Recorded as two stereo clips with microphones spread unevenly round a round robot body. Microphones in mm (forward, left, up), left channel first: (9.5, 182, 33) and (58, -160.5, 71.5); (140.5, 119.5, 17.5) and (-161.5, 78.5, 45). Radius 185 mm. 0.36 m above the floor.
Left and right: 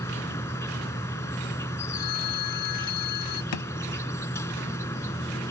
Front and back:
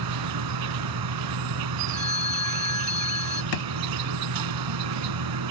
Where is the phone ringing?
125° left.